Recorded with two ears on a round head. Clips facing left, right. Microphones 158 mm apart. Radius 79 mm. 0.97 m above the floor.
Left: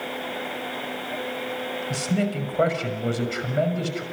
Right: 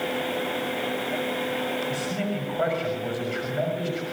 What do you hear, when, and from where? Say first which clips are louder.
1.9 s a man speaking: left 3 dB; 55° left (ahead or behind), 6 m